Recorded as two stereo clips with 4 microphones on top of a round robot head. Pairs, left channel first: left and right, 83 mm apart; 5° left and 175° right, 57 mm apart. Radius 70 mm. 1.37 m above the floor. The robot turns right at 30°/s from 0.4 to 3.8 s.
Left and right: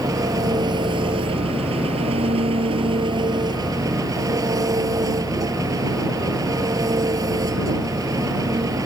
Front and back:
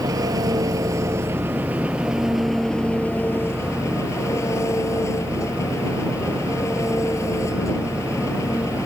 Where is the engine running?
145° right; by 8.9 s 45° right.